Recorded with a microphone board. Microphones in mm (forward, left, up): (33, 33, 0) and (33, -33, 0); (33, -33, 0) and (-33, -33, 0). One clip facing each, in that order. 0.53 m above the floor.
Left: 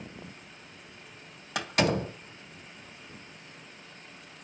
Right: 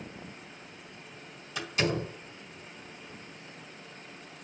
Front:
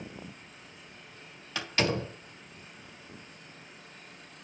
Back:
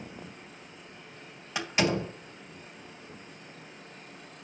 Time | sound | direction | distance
1.6 | a door slam | 105° left | 3 m